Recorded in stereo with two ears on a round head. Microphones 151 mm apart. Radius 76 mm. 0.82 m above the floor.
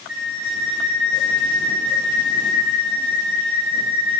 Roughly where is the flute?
Right.